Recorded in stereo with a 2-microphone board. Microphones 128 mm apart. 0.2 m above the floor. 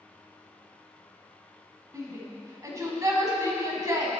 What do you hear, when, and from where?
1.9 s a shout: 25° right (ahead or behind), 1.5 m